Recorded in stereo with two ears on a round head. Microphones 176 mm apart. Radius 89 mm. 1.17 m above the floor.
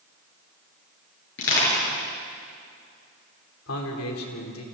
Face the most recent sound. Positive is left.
turn(degrees=85)